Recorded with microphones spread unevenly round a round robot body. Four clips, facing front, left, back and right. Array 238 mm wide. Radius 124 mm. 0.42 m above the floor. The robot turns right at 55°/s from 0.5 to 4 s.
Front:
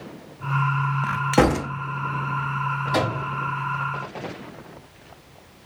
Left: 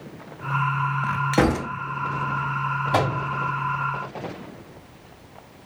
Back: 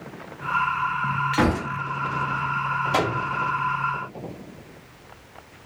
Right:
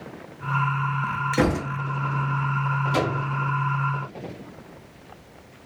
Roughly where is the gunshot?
Ahead.